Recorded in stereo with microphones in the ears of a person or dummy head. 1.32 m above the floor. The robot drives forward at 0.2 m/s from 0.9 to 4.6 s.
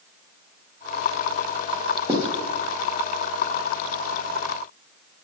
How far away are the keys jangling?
I don't hear keys jangling.